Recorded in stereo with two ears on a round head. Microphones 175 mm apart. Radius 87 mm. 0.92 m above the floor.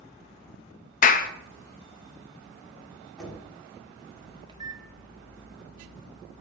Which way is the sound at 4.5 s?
20° right (ahead or behind).